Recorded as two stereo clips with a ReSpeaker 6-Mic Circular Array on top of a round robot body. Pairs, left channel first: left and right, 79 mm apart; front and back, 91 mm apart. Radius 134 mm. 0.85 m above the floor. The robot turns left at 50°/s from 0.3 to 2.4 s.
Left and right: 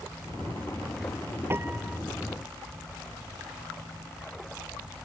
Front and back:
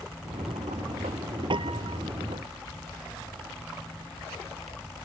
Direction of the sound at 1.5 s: 150° right.